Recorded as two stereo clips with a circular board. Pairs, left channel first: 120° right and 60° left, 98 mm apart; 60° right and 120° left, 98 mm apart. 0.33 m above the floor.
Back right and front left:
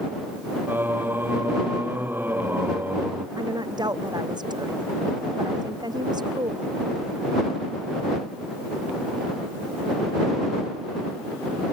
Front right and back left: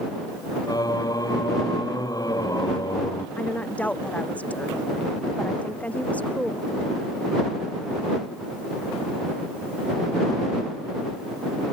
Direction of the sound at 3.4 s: 15° left.